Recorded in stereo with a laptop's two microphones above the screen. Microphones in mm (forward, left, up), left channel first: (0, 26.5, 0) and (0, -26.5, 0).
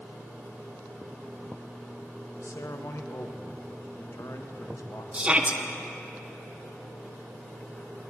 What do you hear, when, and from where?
2.4 s a man speaking: 65° left (ahead or behind), 0.7 m
5.1 s a shout: 25° right (ahead or behind), 0.6 m